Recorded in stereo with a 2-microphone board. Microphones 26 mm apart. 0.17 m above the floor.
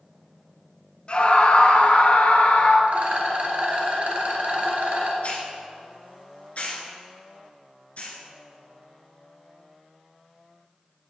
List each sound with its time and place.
1.1 s a scream: 40° left (ahead or behind), 1.4 m; by 2.8 s 65° left (ahead or behind), 2.5 m
2.9 s a rattle: 55° right (ahead or behind), 2.5 m
5.2 s a hiss: 55° left (ahead or behind), 2.5 m